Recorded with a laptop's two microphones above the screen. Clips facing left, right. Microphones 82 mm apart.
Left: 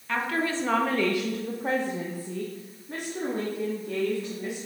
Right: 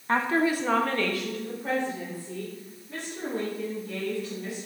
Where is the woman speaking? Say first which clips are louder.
Right 4 dB; 35° right (ahead or behind), 0.7 m; by 4.7 s 60° left (ahead or behind), 2.5 m.